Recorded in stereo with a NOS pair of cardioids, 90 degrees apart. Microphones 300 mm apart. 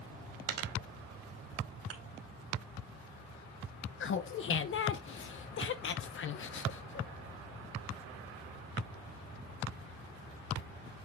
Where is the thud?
50° right, 2.5 m.